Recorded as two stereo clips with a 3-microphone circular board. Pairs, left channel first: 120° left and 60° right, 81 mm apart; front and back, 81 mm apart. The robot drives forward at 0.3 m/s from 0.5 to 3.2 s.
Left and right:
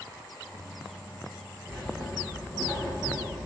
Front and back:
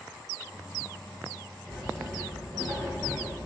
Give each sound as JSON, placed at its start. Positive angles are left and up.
{"t": 1.7, "sound": "writing", "azimuth_deg": 180, "distance_m": 3.5}